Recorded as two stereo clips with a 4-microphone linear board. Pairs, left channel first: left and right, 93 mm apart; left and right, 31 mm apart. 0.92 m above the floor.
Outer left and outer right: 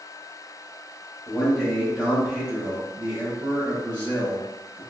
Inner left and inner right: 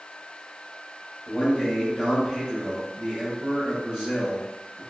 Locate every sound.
1.3 s a man speaking: centre (ahead or behind), 1.1 m; by 4.8 s 25° right (ahead or behind), 1.4 m